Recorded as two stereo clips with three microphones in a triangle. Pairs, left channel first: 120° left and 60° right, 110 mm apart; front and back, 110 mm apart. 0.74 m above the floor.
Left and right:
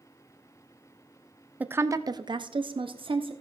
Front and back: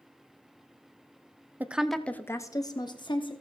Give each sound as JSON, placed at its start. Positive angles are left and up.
{"t": 1.6, "sound": "a woman speaking", "azimuth_deg": -125, "distance_m": 0.5}